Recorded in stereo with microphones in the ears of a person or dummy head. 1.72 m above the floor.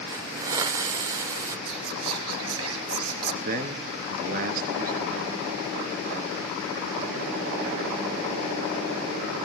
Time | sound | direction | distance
0.1 | a hiss | 15° right (ahead or behind) | 1.0 m
1.7 | whispering | 80° right | 3 m
3.5 | a man speaking | 45° right (ahead or behind) | 3 m